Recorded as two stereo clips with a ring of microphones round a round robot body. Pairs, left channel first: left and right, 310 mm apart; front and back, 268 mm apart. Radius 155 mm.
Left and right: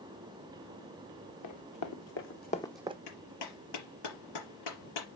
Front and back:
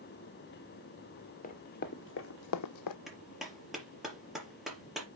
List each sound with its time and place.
1.4 s running footsteps: 60° left, 2 m; by 3.0 s 20° right, 0.8 m
3.1 s a clap: 90° left, 5 m